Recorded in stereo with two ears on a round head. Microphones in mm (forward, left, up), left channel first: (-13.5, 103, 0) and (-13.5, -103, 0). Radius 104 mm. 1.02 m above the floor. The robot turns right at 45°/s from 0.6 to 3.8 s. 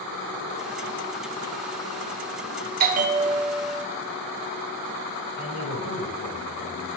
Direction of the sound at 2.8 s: 45° right.